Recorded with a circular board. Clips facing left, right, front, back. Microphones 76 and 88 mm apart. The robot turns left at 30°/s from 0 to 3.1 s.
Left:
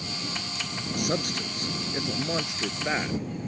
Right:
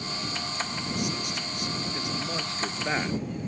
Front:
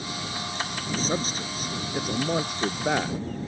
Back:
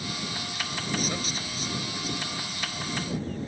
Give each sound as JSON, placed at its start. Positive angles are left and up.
{"t": 1.0, "sound": "a man speaking", "azimuth_deg": 60}